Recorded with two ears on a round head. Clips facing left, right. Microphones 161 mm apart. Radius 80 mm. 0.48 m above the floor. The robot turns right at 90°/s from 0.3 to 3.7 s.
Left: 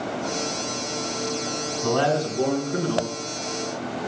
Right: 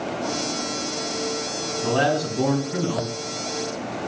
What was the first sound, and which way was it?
A man speaking, 165° right.